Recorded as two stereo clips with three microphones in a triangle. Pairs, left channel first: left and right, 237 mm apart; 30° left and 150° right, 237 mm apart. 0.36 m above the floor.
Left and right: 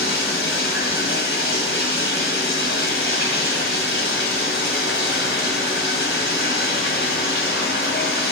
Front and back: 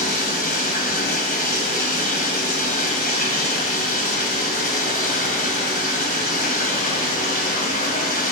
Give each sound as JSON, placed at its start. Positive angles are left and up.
{"t": 0.0, "sound": "running water", "azimuth_deg": 75, "distance_m": 1.8}